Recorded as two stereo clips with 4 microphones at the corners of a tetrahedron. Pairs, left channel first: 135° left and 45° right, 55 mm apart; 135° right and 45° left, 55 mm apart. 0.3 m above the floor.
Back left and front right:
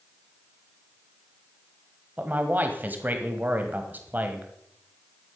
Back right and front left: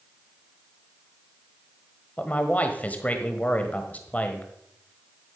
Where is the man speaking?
85° right, 1.4 m.